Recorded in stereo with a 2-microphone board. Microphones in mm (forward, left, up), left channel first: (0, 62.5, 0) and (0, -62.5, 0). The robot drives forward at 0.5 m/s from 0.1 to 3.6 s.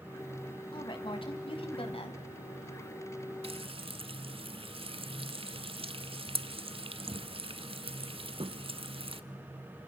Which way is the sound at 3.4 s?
55° right (ahead or behind).